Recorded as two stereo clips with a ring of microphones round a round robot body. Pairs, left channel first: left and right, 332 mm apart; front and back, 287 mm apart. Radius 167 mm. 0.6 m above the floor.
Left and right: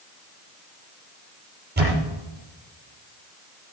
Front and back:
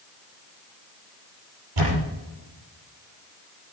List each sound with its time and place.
1.8 s a camera shutter: 155° right, 6 m